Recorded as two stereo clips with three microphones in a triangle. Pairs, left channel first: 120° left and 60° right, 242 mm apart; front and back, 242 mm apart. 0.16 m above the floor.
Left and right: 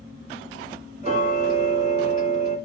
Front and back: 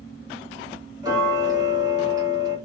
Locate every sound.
1.0 s ticking: 110° right, 1.7 m